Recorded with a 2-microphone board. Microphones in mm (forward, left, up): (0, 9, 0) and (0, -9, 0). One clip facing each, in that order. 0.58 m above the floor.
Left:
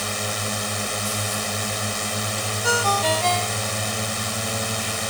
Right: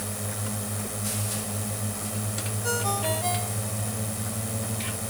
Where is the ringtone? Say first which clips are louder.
Left 8 dB; 40° left (ahead or behind).